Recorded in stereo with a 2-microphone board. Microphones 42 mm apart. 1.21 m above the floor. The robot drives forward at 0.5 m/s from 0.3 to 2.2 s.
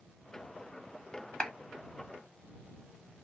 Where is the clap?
15° left (ahead or behind), 1.2 m.